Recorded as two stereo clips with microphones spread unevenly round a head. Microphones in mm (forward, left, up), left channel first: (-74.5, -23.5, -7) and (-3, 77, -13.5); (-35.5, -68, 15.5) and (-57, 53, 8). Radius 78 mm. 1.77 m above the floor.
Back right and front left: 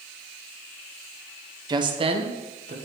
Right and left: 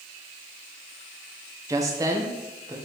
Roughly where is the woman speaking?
Ahead left.